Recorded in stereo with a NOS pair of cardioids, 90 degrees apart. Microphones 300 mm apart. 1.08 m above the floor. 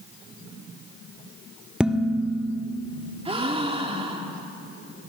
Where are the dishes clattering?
5° right, 1.6 m.